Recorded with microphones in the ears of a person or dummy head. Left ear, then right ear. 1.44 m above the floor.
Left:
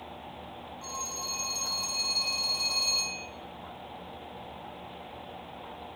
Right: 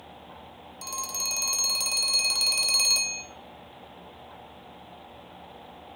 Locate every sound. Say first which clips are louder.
0.8 s a phone ringing: right 5 dB; 50° right (ahead or behind), 1.1 m